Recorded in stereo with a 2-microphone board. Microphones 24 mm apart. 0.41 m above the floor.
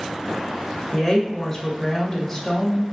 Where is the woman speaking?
25° left (ahead or behind), 1.2 m.